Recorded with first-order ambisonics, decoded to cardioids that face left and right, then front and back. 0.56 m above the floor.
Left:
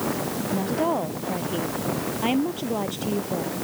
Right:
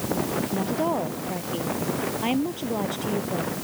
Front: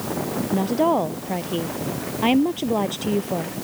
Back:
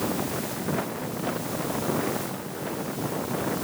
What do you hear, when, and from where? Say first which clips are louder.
0.5 s a woman speaking: left 3 dB, front 11 dB; 5° left